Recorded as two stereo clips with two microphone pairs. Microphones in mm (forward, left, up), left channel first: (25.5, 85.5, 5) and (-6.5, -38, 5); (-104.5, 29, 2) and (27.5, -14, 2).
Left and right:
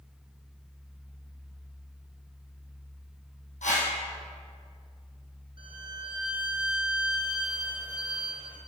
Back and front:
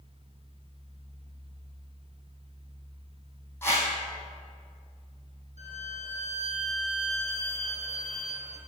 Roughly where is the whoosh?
Left.